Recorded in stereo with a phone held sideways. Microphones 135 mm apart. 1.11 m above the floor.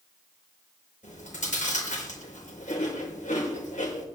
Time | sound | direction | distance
1.0 | chewing | 80° left | 5 m